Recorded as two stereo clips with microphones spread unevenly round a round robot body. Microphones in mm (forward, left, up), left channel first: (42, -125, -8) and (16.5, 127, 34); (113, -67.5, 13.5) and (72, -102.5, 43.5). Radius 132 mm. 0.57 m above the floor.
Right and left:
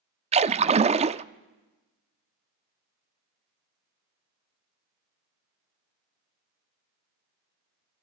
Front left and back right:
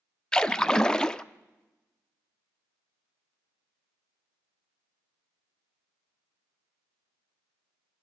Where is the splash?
30° left, 0.6 m.